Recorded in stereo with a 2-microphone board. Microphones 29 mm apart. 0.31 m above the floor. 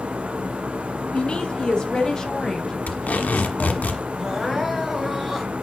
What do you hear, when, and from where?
1.1 s a woman speaking: 45° left (ahead or behind), 1.9 m; by 3.9 s centre (ahead or behind), 3 m
2.9 s tape being pulled: 70° left (ahead or behind), 1.5 m
4.2 s crying: 5° right (ahead or behind), 1.9 m